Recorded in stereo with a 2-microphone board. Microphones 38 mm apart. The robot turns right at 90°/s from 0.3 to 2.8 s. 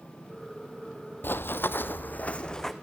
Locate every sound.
1.2 s running footsteps: 70° left (ahead or behind), 0.6 m; by 2.7 s 10° left (ahead or behind), 1.5 m